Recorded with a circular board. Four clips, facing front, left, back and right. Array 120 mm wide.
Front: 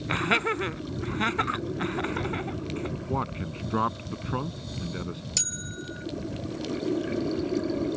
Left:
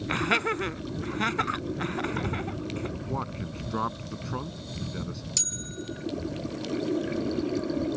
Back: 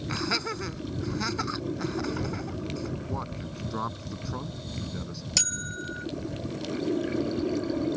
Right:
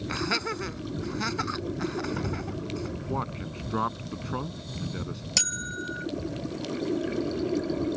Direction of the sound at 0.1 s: 35° left.